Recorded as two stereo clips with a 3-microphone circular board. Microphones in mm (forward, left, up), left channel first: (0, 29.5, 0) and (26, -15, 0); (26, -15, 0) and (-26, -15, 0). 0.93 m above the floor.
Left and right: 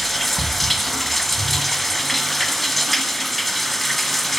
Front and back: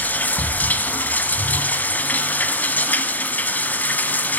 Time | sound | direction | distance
0.0 | running water | 35° left | 1.0 m